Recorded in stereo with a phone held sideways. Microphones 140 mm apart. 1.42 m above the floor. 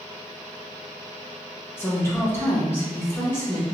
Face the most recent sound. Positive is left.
turn(degrees=20)  # may be behind; listen again after turning